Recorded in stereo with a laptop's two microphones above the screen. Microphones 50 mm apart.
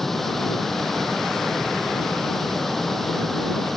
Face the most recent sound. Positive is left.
turn(degrees=5)  # may be behind; listen again after turning